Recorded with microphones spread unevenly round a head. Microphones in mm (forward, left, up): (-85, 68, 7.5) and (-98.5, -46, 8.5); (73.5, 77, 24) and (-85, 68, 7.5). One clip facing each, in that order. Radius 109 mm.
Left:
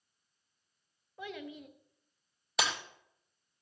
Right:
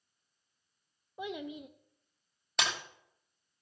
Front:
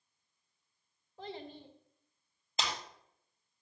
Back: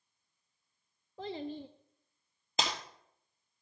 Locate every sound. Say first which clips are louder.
1.2 s a child speaking: right 4 dB, back 6 dB; 170° right, 0.6 m
2.6 s breaking glass: left 1 dB, back 3 dB; 170° left, 3 m